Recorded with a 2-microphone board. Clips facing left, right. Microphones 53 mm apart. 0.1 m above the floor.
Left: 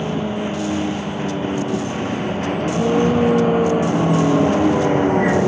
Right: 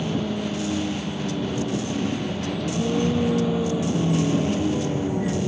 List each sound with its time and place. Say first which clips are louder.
0.0 s a vehicle: left 4 dB; 30° left (ahead or behind); by 5.5 s 65° left (ahead or behind)